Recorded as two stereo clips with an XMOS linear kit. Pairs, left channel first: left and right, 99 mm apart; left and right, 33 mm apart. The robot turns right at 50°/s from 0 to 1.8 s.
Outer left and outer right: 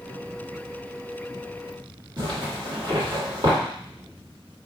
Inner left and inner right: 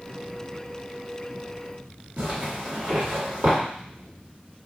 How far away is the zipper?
About 1.5 m.